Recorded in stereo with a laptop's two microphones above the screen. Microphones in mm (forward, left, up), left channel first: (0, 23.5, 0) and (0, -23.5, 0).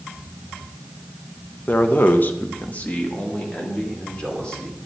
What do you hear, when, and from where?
1.7 s a man speaking: 35° left (ahead or behind), 1.0 m; by 4.8 s 20° left (ahead or behind), 4 m